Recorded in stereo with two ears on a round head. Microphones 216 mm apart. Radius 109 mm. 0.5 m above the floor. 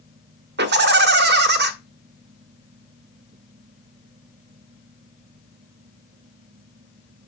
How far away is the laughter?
About 1.4 m.